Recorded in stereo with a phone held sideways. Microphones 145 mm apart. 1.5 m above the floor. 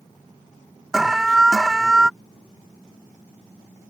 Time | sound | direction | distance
0.9 | an alarm | centre (ahead or behind) | ?